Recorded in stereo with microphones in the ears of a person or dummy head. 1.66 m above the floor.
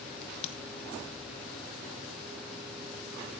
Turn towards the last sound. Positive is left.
turn(degrees=40)  # may be behind; listen again after turning